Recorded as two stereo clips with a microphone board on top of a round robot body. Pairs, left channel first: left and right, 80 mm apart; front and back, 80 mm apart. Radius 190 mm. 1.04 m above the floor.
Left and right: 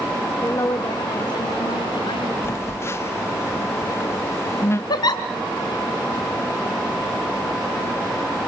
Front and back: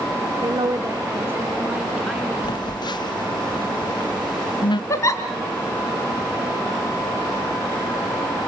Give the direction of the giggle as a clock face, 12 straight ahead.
10 o'clock.